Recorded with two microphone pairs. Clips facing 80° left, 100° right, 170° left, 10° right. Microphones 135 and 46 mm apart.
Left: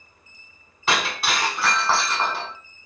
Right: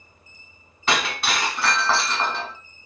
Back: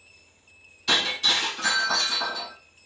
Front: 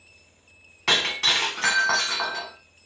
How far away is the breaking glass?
About 1.3 m.